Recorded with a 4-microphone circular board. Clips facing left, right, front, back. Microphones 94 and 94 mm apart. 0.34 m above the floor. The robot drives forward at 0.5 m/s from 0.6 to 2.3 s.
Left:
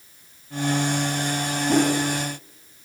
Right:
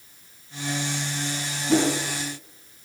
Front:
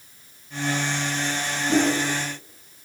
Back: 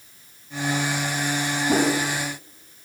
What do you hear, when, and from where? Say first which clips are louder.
1.7 s a whoosh: left 1 dB, even; 145° left, 2.5 m